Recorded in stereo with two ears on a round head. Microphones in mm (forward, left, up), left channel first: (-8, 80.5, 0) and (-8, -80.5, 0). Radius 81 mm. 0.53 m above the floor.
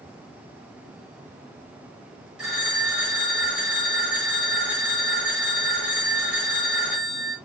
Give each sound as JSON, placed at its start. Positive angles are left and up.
{"t": 2.4, "sound": "a phone ringing", "side_deg": -5, "distance_m": 6.0}